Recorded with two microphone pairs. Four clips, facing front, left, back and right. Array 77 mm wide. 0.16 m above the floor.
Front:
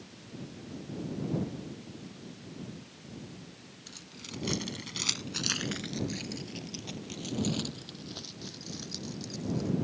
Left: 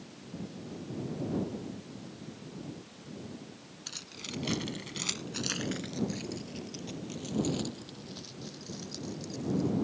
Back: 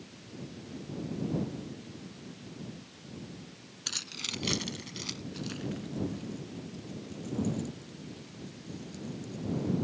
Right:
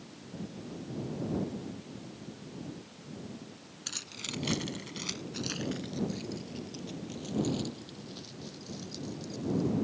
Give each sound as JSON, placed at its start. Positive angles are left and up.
{"t": 3.9, "sound": "keys jangling", "azimuth_deg": -160}